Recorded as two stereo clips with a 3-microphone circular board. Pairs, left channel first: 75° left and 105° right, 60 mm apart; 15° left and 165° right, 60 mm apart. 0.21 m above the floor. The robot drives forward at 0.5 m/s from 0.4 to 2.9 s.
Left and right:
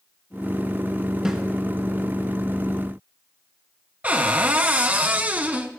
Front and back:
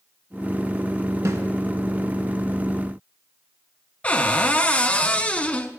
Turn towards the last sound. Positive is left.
turn(degrees=-45)